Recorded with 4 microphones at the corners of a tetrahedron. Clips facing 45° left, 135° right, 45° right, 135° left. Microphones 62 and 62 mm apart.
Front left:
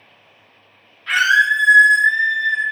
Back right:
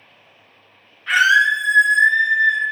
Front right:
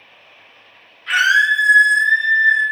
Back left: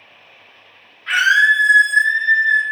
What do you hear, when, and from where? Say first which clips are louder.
1.1 s a scream: even, back left 1 dB; 160° left, 1.2 m